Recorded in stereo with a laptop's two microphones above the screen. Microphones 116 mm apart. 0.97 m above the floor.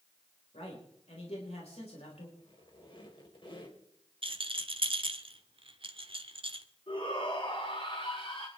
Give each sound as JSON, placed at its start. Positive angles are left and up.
{"t": 0.5, "sound": "a man speaking", "side_deg": 65, "distance_m": 4.0}
{"t": 2.4, "sound": "a squeak", "side_deg": 50, "distance_m": 4.0}
{"t": 4.2, "sound": "a rattle", "side_deg": -50, "distance_m": 1.3}
{"t": 6.9, "sound": "a shout", "side_deg": 50, "distance_m": 7.5}